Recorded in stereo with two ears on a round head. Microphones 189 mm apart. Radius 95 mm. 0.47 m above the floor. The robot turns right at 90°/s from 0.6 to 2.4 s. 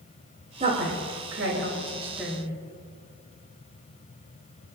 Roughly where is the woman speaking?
Right.